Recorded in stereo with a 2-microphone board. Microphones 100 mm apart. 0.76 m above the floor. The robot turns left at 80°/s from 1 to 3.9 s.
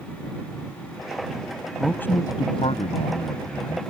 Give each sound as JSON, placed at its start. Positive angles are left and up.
{"t": 1.8, "sound": "a man speaking", "azimuth_deg": 180}